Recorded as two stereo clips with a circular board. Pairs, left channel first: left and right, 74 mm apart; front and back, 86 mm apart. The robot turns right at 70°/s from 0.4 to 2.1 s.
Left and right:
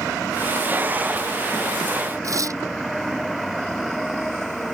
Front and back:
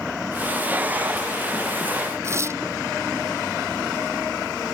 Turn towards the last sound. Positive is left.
turn(degrees=-125)